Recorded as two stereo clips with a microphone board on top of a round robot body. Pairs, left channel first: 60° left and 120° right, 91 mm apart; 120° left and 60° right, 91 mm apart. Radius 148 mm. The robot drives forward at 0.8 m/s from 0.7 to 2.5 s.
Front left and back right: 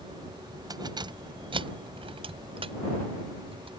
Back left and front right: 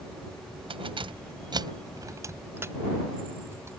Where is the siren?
I don't hear a siren.